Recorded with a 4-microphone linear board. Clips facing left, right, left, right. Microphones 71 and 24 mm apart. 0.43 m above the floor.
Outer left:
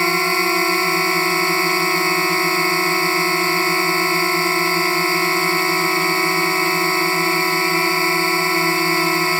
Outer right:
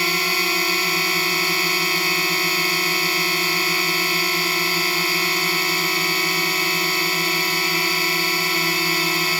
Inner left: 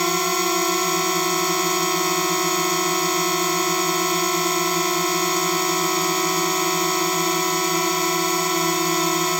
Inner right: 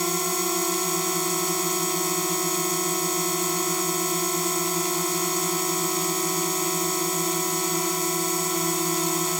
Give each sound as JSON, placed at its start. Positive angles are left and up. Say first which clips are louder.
{"t": 0.0, "sound": "a drone", "louder": "outer left 5 dB, inner left 5 dB", "side_deg": 30}